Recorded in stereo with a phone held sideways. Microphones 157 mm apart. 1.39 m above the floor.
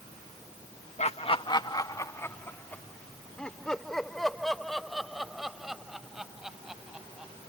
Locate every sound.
1.0 s laughter: 45° left (ahead or behind); by 7.3 s 5° right (ahead or behind)